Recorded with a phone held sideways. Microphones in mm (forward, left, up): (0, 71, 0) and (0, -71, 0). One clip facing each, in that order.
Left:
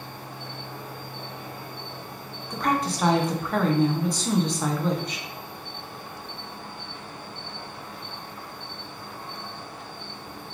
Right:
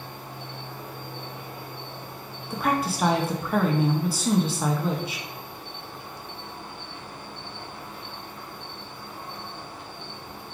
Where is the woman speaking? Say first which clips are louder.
Even; 5° right (ahead or behind), 0.5 m.